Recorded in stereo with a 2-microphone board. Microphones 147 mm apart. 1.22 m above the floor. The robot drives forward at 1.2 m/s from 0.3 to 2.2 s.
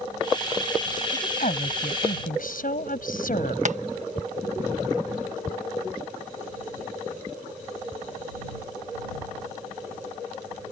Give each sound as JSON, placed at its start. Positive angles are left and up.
{"t": 1.1, "sound": "a woman speaking", "side_deg": 65}
{"t": 3.6, "sound": "tapping", "side_deg": -55}